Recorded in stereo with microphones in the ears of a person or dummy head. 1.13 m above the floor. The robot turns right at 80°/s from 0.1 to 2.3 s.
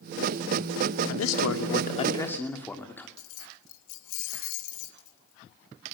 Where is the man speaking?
70° left, 2.5 m; by 3.1 s 170° left, 2.5 m.